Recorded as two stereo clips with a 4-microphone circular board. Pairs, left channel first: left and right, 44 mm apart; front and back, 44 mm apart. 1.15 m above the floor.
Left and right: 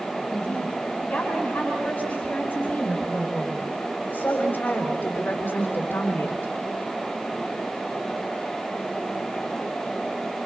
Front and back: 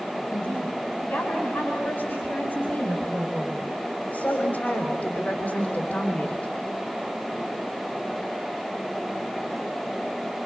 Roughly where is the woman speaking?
Ahead left.